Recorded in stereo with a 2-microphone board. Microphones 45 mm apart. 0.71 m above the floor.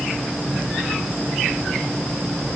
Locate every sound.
Only background noise.